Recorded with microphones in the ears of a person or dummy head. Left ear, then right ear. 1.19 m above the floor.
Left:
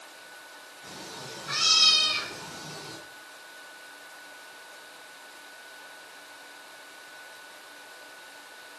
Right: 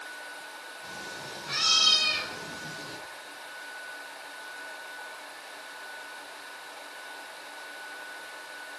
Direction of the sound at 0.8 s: 20° left (ahead or behind).